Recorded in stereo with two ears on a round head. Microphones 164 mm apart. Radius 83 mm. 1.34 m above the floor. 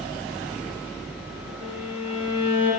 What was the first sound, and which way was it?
A violin, 10° right (ahead or behind).